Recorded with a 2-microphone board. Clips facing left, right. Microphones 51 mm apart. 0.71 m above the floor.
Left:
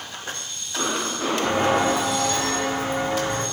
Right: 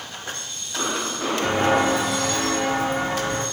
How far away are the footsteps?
About 0.9 m.